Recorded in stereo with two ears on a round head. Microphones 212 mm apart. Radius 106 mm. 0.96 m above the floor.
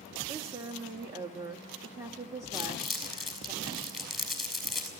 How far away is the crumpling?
About 6 m.